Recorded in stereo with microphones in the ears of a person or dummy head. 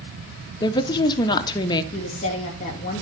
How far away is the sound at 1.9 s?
About 2.5 m.